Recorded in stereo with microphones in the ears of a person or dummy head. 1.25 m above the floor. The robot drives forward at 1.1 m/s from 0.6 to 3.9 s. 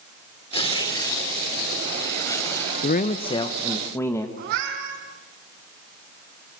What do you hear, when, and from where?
0.5 s tearing paper: 30° left (ahead or behind), 2 m; by 2.7 s 15° left (ahead or behind), 4.5 m
2.8 s a man speaking: 50° left (ahead or behind), 0.6 m; by 4.3 s 15° left (ahead or behind), 1.6 m
4.4 s a cat meowing: 60° right (ahead or behind), 6 m